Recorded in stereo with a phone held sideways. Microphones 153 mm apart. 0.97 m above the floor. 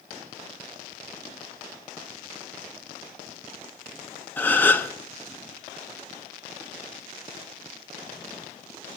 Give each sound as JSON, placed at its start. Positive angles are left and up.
{"t": 4.4, "sound": "a gasp", "side_deg": 10, "distance_m": 1.4}